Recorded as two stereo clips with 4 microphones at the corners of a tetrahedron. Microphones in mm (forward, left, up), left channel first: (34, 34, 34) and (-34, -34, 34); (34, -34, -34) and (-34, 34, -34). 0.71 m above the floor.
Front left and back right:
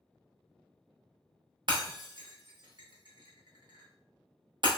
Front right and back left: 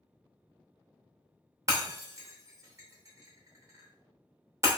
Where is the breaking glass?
170° right, 0.7 m.